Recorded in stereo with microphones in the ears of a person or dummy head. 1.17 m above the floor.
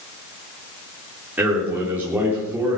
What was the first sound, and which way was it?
A man speaking, 5° right (ahead or behind).